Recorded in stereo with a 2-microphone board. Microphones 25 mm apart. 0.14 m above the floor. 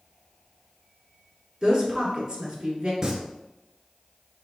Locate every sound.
1.6 s a woman speaking: 30° right (ahead or behind), 1.7 m
3.0 s singing: 25° right (ahead or behind), 0.8 m